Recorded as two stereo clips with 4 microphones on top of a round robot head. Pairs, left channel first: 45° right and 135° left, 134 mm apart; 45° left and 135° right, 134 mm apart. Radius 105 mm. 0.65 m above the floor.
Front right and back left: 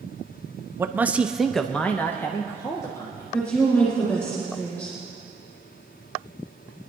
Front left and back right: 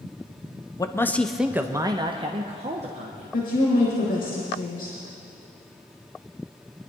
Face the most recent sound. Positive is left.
turn(degrees=25)